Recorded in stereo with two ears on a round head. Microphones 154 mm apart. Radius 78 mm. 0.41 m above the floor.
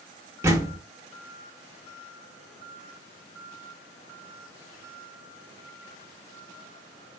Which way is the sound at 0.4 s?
15° right (ahead or behind).